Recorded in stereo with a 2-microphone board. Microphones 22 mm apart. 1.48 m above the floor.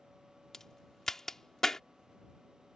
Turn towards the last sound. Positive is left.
turn(degrees=20)  # may be behind; listen again after turning